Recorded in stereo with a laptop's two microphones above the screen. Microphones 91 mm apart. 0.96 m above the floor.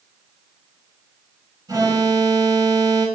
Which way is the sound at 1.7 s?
45° right (ahead or behind).